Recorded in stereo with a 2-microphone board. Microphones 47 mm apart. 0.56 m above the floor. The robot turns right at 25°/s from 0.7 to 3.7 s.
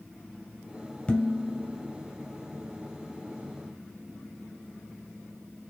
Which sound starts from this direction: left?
Dishes clattering, at 1.1 s.